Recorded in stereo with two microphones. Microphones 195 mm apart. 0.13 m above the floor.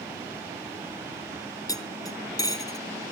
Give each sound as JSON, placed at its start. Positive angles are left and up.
{"t": 1.7, "sound": "cutlery clinking", "side_deg": 20, "distance_m": 0.8}